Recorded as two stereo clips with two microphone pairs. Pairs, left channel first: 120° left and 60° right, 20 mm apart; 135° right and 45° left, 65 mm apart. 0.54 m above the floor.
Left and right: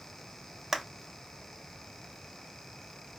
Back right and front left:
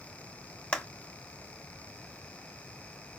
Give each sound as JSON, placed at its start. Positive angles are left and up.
{"t": 0.7, "sound": "a clap", "azimuth_deg": -120, "distance_m": 0.7}